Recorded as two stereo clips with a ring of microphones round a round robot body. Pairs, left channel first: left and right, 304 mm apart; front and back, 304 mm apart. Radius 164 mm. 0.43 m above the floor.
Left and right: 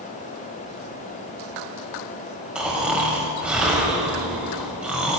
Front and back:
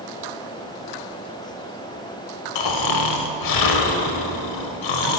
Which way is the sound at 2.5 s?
5° right.